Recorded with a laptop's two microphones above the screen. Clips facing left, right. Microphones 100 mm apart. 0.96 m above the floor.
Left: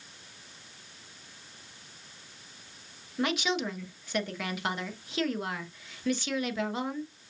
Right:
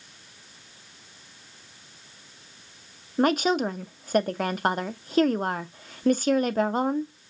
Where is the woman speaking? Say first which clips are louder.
Right 8 dB; 50° right (ahead or behind), 0.7 m.